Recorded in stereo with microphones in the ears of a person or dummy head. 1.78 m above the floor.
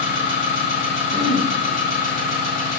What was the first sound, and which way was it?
An engine running, 50° left (ahead or behind).